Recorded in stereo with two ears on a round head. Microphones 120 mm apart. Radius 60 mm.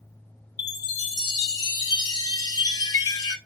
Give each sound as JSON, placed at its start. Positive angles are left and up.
{"t": 0.6, "sound": "a chime", "side_deg": 30, "distance_m": 0.8}